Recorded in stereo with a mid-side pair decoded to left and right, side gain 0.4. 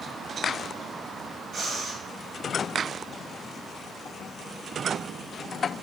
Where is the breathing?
55° right, 1.1 m.